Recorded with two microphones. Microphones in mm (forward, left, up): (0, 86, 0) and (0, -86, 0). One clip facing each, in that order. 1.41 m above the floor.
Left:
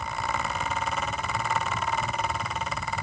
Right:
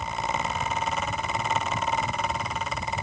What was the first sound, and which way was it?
Only background noise.